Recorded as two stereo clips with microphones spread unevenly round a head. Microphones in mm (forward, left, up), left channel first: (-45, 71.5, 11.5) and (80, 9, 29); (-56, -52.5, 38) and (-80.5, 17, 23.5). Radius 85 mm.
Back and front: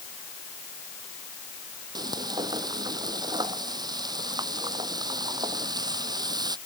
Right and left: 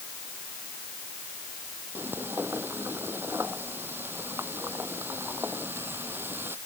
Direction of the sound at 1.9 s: 35° left.